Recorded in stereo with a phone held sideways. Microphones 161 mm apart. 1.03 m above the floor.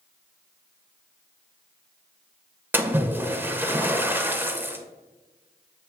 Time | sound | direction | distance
2.7 | a splash | 15° right (ahead or behind) | 0.7 m